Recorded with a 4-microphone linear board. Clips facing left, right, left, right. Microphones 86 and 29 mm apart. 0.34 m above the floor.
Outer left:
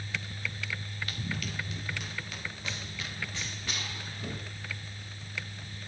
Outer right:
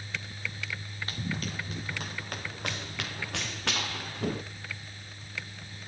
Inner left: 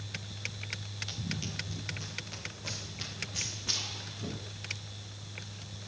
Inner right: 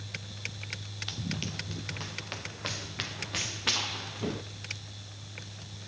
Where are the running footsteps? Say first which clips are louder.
Outer right 4 dB, inner right 4 dB; 35° right (ahead or behind), 2 m; by 4.4 s 75° right (ahead or behind), 1.8 m.